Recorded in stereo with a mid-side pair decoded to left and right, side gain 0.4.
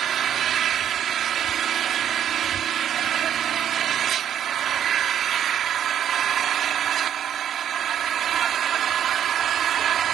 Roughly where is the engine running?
Right.